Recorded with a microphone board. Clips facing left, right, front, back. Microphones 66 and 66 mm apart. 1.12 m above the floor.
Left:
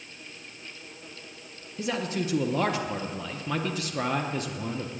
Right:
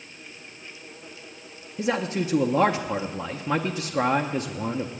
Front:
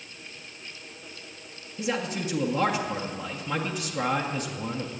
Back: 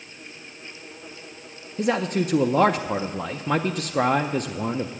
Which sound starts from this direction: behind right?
A man speaking, at 1.8 s.